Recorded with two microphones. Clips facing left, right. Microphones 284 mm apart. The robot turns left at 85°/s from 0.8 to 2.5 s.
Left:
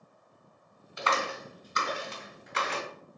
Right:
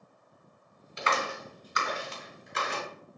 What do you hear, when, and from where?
1.0 s a clap: 30° right (ahead or behind), 2.5 m; by 2.8 s 75° left (ahead or behind), 2.5 m